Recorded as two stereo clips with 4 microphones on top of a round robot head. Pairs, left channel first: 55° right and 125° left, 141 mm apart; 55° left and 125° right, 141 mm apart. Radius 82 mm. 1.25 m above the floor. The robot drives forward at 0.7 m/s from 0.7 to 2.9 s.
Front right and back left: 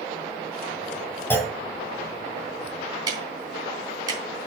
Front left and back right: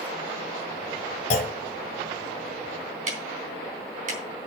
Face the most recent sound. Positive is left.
turn(degrees=-170)